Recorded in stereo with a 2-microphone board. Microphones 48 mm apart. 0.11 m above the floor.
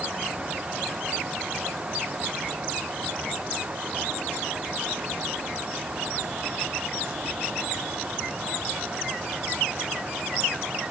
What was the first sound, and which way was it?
Only background noise.